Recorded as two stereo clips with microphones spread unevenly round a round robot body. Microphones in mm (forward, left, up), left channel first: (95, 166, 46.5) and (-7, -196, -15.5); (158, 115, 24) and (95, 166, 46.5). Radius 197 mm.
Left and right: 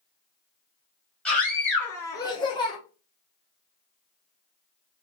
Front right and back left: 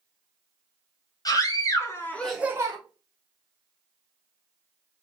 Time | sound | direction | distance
1.2 | a scream | 15° right | 2.0 m